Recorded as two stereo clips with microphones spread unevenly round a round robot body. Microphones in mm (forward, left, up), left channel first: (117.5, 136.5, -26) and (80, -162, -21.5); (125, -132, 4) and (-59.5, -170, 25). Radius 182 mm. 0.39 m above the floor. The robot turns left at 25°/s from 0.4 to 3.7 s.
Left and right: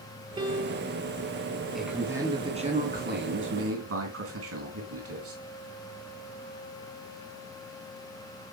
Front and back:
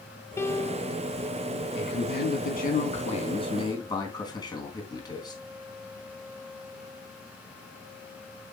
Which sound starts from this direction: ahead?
A man speaking, at 1.8 s.